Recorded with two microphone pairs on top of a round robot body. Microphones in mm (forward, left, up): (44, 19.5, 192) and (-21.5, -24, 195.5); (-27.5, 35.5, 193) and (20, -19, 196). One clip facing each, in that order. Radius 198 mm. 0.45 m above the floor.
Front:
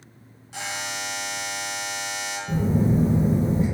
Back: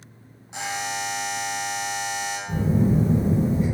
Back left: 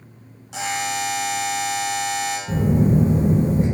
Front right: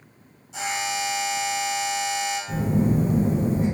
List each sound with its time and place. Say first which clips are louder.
0.5 s a buzzer: back 3 dB, back left 3 dB; 145° left, 0.6 m
2.5 s a phone buzzing: even, back left 5 dB; 100° left, 0.5 m